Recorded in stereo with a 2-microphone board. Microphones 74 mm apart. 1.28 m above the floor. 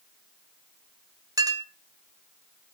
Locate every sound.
1.4 s a clink: 55° right (ahead or behind), 1.1 m